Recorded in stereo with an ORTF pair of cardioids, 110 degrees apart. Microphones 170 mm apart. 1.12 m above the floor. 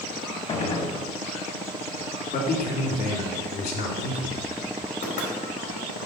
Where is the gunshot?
40° left, 1.0 m.